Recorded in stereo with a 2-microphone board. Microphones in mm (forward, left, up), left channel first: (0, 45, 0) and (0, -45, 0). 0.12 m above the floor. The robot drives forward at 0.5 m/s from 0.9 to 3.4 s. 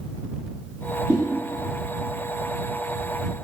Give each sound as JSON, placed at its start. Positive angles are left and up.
{"t": 1.1, "sound": "a whoosh", "side_deg": -15, "distance_m": 1.5}